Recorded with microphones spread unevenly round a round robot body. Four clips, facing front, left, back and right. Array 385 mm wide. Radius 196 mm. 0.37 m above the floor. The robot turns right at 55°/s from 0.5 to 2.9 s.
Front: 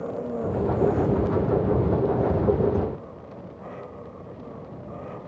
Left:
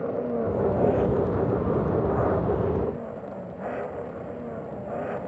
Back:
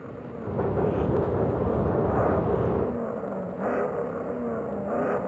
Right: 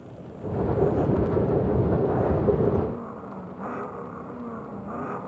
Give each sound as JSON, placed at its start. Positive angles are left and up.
{"t": 0.0, "sound": "an engine running", "azimuth_deg": 65}